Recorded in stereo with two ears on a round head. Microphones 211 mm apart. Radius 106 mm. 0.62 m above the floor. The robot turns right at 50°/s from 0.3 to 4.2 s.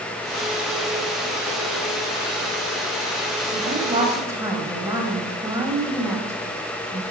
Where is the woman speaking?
45° right, 3 m; by 7.0 s 10° right, 3 m.